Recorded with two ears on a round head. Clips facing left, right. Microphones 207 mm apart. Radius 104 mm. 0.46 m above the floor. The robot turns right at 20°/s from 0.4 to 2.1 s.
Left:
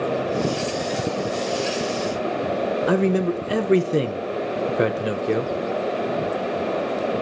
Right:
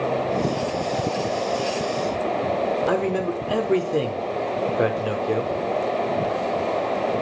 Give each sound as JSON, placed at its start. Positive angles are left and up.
{"t": 2.9, "sound": "a man speaking", "side_deg": 25, "distance_m": 0.8}